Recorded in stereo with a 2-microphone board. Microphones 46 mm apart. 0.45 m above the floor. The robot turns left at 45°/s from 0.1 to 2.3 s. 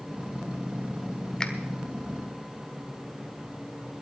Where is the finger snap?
15° left (ahead or behind), 1.2 m; by 1.5 s 20° left (ahead or behind), 1.2 m.